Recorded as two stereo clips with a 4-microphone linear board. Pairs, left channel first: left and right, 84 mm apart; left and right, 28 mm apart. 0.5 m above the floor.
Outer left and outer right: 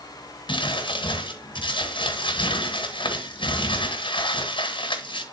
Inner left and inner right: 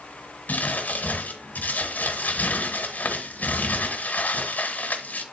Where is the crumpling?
80° left, 1.6 m.